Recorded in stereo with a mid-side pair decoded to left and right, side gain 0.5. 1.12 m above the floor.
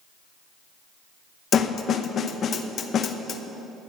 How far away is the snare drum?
About 0.7 m.